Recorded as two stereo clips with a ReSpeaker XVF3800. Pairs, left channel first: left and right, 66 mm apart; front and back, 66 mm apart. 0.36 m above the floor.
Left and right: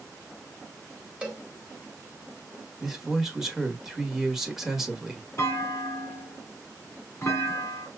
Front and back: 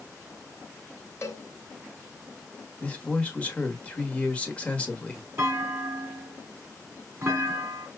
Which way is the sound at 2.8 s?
20° right.